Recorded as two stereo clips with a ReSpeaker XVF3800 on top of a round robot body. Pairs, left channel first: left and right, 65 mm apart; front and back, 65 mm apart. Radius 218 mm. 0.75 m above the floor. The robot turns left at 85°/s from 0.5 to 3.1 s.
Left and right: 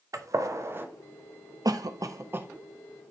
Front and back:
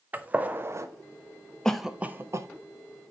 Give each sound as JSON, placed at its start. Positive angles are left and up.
{"t": 0.1, "sound": "a gunshot", "azimuth_deg": -115, "distance_m": 1.0}
{"t": 1.6, "sound": "a cough", "azimuth_deg": -80, "distance_m": 1.0}